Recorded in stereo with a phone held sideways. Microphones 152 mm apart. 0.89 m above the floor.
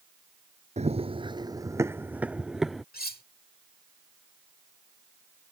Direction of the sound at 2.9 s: 90° left.